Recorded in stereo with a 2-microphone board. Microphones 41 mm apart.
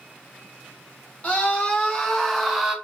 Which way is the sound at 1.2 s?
30° left (ahead or behind).